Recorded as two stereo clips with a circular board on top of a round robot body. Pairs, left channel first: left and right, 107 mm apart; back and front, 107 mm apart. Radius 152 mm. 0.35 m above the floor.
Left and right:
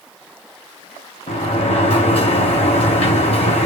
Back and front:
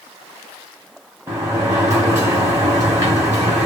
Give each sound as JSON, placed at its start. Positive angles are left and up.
{"t": 1.3, "sound": "a sliding door", "azimuth_deg": 60, "distance_m": 4.5}